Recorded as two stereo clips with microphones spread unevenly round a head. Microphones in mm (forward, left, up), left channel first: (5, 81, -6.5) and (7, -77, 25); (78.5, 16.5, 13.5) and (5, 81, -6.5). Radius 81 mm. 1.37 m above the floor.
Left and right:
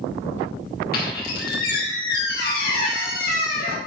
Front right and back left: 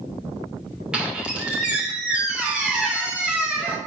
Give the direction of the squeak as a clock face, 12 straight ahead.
10 o'clock.